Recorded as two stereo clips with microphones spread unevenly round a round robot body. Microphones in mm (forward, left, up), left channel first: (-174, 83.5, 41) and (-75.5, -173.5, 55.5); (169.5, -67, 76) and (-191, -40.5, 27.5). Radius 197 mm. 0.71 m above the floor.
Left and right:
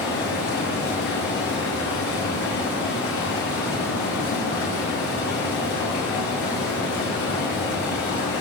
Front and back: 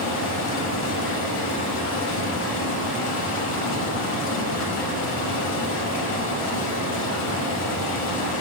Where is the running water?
55° left, 2 m.